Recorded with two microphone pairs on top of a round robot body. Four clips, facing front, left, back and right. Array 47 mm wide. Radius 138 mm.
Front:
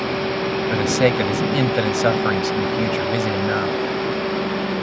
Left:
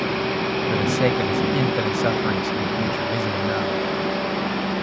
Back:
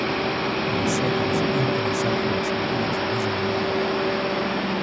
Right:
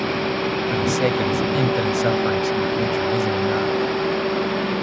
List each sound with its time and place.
0.7 s a man speaking: 10° left